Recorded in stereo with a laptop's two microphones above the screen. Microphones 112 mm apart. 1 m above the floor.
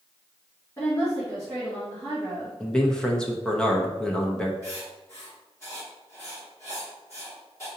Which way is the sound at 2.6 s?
5° left (ahead or behind).